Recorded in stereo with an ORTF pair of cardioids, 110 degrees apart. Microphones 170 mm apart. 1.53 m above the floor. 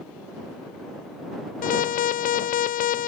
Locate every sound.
1.6 s an alarm: 55° left